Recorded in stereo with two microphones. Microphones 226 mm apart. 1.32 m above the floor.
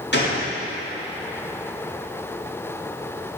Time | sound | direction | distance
0.1 | a gunshot | 50° left (ahead or behind) | 2 m